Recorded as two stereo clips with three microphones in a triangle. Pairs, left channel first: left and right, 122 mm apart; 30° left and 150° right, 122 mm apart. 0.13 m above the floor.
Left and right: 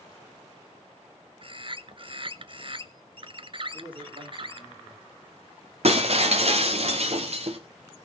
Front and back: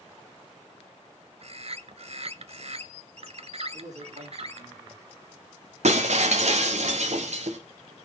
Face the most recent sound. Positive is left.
turn(degrees=-125)